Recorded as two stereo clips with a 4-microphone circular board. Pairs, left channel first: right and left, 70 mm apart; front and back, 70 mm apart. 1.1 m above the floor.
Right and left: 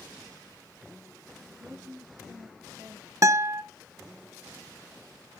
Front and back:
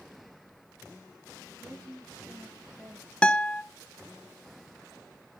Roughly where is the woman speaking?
Behind left.